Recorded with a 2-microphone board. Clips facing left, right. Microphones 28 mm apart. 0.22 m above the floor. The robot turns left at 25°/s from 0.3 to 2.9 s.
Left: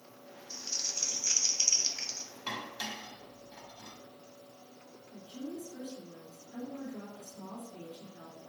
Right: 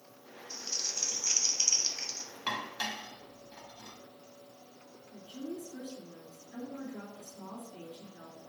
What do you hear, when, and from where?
0.5 s crumpling: 10° right (ahead or behind), 0.8 m; by 2.3 s 10° left (ahead or behind), 0.8 m
2.5 s dishes clattering: 30° right (ahead or behind), 0.7 m
5.1 s a woman speaking: 60° right (ahead or behind), 3 m